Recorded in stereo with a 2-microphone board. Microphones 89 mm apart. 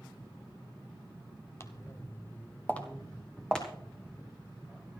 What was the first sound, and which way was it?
Footsteps, 30° left (ahead or behind).